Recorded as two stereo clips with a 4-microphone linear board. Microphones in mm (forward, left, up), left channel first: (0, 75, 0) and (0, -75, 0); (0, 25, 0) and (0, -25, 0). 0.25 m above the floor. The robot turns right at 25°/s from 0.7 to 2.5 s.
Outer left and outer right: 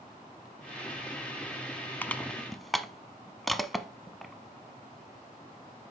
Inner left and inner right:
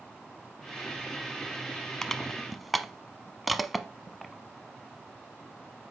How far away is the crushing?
About 0.7 m.